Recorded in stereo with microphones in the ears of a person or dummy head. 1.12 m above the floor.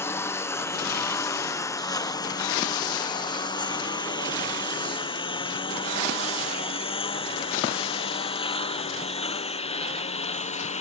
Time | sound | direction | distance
0.0 | a lawn mower | 15° left (ahead or behind) | ?